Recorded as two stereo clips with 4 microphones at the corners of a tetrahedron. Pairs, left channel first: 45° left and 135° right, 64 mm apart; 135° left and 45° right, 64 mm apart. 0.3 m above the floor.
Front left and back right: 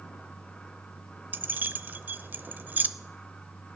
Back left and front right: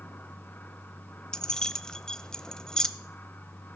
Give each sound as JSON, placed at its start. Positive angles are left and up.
{"t": 1.3, "sound": "keys jangling", "azimuth_deg": -155, "distance_m": 0.6}